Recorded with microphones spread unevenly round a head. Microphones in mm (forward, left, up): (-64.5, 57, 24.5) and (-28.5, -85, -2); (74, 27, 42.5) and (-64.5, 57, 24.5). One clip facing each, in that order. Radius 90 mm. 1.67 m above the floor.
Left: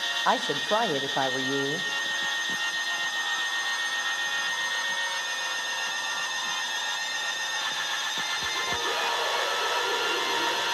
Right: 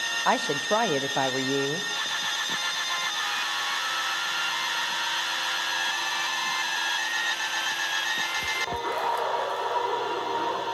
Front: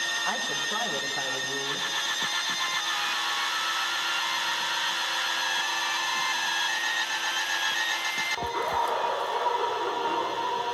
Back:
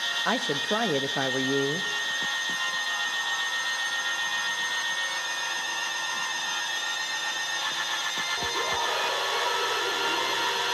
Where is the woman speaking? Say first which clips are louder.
Right 1 dB, back 8 dB; 165° right, 0.5 m.